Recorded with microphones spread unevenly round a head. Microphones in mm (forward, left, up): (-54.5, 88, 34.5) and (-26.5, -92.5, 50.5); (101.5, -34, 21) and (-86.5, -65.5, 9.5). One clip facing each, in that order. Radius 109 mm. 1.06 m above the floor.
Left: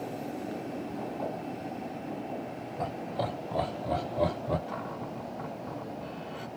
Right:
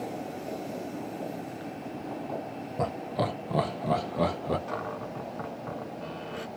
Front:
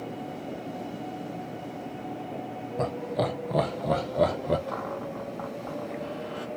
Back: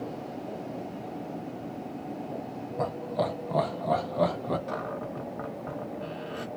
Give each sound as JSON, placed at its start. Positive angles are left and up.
{"t": 2.8, "sound": "laughter", "azimuth_deg": -50, "distance_m": 0.9}
{"t": 4.7, "sound": "a cupboard door", "azimuth_deg": -105, "distance_m": 1.5}